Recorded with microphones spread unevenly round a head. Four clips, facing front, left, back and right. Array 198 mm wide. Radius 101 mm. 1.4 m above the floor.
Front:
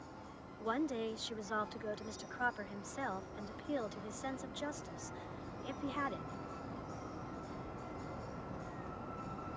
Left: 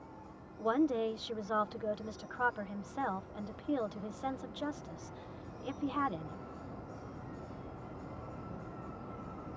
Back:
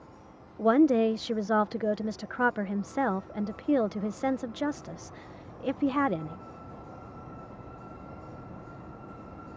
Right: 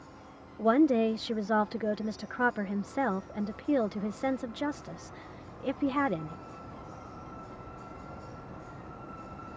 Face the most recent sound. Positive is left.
turn(degrees=-140)